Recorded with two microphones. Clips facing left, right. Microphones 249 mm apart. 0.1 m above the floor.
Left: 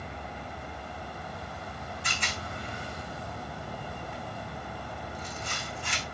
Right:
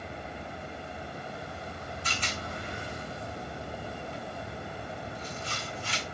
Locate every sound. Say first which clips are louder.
2.0 s a rattle: right 1 dB; 80° left, 5 m